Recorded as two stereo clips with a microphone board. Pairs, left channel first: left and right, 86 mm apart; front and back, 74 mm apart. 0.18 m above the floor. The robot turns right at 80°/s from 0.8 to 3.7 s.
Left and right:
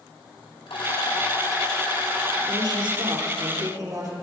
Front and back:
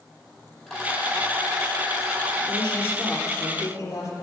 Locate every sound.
0.7 s a rattle: 80° left, 4 m; by 2.4 s 155° right, 4 m
2.5 s a woman speaking: 145° right, 3.5 m; by 4.1 s 45° right, 3.5 m